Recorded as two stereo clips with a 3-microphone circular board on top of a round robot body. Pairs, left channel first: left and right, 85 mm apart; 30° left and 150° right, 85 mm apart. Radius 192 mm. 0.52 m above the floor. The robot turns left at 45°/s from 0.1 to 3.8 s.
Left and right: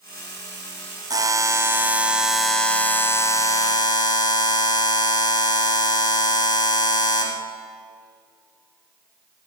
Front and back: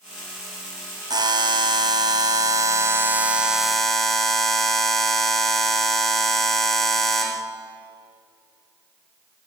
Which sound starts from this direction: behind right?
A buzzer, at 1.1 s.